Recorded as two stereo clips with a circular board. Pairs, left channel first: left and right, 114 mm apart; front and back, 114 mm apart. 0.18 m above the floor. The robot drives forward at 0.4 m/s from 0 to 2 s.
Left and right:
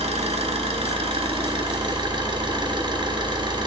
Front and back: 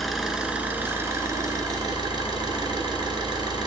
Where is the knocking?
No knocking in this recording.